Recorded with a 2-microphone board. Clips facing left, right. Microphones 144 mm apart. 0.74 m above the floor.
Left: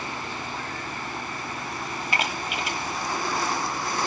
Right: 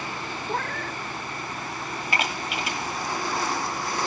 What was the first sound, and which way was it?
A cat meowing, 65° right (ahead or behind).